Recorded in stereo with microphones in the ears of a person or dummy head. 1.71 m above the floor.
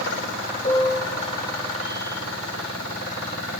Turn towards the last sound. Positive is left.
turn(degrees=25)  # may be behind; listen again after turning